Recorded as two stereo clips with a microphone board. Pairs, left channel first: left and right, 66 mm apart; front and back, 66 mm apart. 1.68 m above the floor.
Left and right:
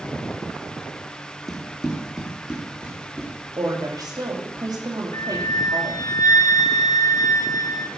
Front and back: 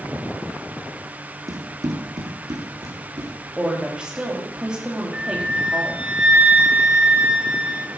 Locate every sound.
1.5 s running footsteps: straight behind, 3 m; by 3.3 s 150° right, 4.5 m
3.6 s a woman speaking: 100° right, 3 m
5.1 s a flute: 110° left, 1.1 m